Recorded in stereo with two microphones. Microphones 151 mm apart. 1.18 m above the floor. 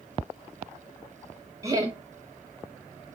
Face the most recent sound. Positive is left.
turn(degrees=-20)  # may be behind; listen again after turning